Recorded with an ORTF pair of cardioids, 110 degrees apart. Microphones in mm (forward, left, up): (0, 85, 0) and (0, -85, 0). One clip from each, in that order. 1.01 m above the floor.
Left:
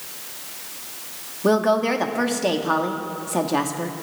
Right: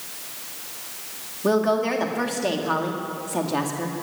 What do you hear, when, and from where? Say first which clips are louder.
1.4 s a woman speaking: left 2 dB; 15° left, 1.6 m